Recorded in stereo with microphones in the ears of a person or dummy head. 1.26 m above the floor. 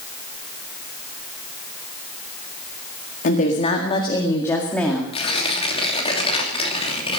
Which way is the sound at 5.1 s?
30° left (ahead or behind).